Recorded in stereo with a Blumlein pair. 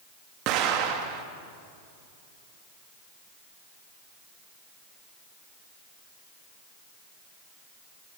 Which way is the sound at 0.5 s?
40° right.